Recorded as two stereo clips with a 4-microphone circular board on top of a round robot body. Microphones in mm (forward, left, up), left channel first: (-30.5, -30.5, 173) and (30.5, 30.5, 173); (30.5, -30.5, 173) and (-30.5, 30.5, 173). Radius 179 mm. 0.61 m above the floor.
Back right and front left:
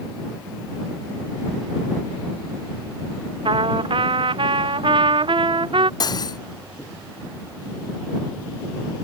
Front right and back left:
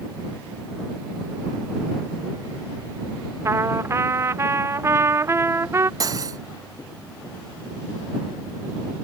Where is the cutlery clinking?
175° right.